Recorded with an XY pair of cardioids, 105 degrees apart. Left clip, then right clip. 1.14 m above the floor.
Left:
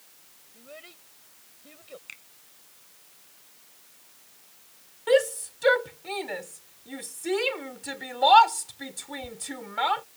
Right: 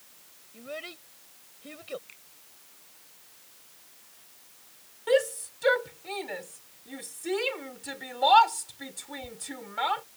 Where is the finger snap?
55° left.